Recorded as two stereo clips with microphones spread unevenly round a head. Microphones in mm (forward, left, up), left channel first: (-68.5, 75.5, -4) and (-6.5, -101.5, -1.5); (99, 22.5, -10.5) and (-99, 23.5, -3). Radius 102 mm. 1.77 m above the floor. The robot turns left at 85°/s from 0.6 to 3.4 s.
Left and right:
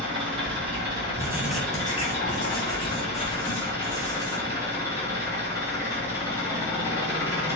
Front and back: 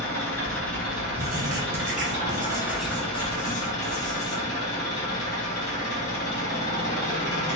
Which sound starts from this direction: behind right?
Writing, at 1.2 s.